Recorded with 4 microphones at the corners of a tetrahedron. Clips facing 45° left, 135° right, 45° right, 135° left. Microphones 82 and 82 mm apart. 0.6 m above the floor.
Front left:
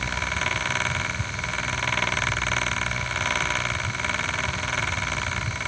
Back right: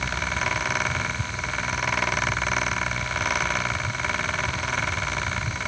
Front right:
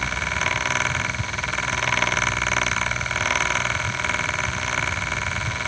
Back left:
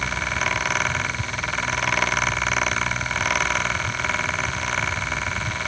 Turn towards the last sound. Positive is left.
No sound to turn to.